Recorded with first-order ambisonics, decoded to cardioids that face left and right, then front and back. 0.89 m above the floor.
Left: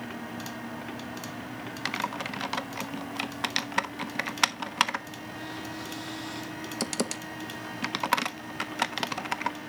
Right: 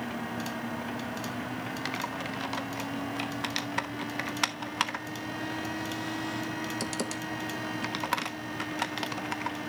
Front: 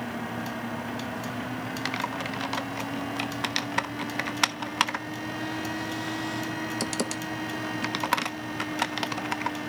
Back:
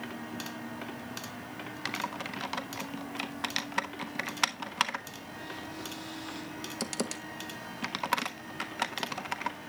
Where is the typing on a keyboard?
50° left, 0.5 m.